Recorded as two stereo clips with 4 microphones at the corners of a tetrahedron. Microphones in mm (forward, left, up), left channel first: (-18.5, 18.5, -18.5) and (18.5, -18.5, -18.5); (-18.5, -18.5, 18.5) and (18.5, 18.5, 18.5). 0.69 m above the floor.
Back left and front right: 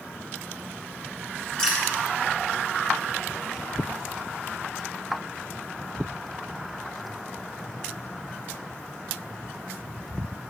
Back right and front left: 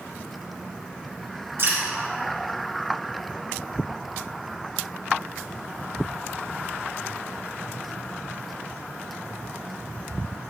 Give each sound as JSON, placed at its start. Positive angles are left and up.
{"t": 1.6, "sound": "dripping", "azimuth_deg": 65, "distance_m": 1.9}